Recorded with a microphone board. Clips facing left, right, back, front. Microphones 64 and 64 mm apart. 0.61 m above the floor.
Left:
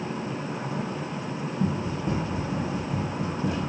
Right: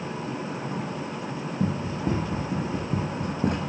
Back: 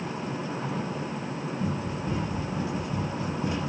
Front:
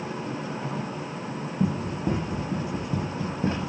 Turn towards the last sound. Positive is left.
turn(degrees=-55)